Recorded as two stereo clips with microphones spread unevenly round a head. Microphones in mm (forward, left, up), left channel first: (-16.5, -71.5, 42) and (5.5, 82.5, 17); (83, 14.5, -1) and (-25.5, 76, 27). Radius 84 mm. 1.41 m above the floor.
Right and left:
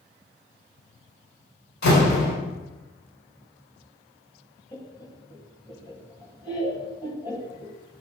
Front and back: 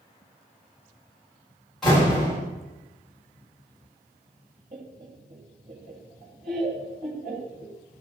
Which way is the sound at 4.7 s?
165° right.